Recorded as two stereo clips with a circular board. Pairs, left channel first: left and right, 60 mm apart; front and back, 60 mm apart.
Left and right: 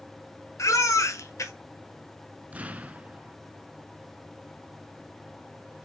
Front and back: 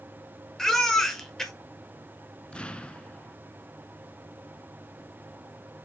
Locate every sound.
0.6 s a baby crying: 80° left, 1.5 m
2.5 s an explosion: 50° right, 0.7 m